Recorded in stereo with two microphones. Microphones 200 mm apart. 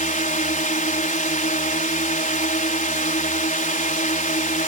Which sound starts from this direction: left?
A drone, at 0.0 s.